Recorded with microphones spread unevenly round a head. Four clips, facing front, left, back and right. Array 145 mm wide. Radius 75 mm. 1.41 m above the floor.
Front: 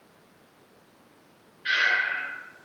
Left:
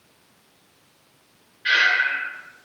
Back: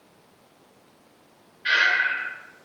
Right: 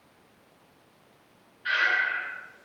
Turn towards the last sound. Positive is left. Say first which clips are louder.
# left 5 dB, back 3 dB
turn(degrees=130)